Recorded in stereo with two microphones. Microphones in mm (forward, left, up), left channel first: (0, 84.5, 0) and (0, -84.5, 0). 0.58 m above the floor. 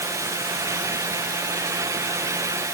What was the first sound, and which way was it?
Only background noise.